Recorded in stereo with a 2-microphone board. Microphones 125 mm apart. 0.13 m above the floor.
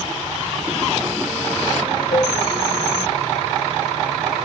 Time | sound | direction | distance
2.1 | a cowbell | 70° left (ahead or behind) | 9 m